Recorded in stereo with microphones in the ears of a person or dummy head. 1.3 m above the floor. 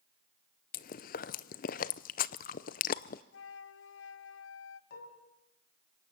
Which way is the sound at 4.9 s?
60° left (ahead or behind).